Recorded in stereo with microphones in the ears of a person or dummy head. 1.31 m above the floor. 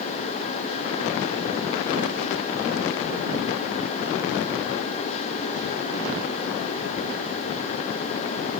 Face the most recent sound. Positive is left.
No sound to turn to.